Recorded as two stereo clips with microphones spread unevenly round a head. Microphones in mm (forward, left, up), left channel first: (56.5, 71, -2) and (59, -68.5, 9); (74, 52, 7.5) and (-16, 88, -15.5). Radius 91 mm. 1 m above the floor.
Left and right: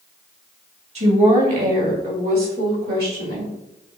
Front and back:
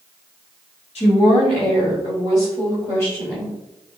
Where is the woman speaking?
55° right, 1.6 m; by 3.5 s 110° right, 2.5 m.